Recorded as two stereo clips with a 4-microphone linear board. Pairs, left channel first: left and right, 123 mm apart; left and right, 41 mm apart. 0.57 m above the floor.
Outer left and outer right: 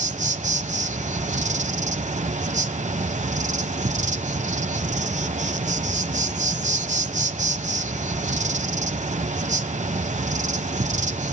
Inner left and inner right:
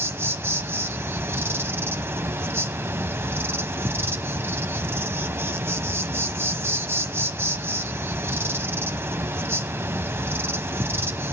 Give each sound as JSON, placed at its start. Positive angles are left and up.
{"t": 0.0, "sound": "an insect", "side_deg": -80, "distance_m": 0.9}